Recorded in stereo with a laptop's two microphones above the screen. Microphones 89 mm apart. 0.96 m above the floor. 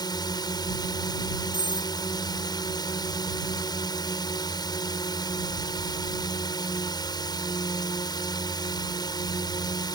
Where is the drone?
45° left (ahead or behind).